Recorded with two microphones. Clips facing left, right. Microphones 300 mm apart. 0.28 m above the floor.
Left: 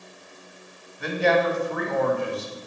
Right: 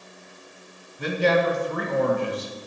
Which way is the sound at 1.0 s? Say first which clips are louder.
Even; 45° right (ahead or behind).